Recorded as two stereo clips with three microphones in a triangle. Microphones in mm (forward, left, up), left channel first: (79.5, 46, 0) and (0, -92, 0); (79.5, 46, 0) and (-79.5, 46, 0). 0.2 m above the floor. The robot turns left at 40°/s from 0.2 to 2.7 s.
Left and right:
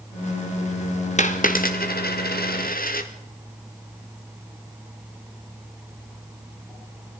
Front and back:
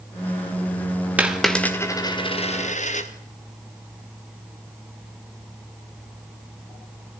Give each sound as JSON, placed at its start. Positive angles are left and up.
{"t": 1.2, "sound": "a dropped coin", "azimuth_deg": 100, "distance_m": 2.5}